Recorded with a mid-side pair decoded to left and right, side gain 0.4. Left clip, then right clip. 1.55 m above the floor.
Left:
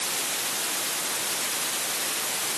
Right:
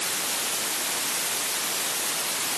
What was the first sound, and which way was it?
Only background noise.